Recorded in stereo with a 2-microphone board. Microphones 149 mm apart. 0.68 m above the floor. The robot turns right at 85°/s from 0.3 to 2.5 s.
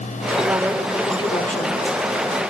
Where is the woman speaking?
35° right, 2.0 m; by 1.8 s 85° left, 2.0 m.